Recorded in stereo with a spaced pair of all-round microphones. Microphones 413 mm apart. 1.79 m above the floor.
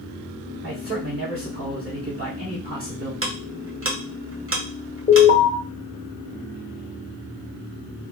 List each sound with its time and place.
0.6 s a man speaking: 30° right (ahead or behind), 1.2 m
3.2 s ticking: 30° right (ahead or behind), 0.7 m
5.1 s an alarm: 20° left (ahead or behind), 1.0 m